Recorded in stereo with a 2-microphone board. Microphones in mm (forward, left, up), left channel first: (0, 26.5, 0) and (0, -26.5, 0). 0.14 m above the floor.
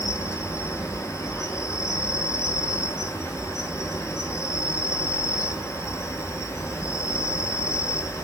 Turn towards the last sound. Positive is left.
turn(degrees=65)  # may be behind; listen again after turning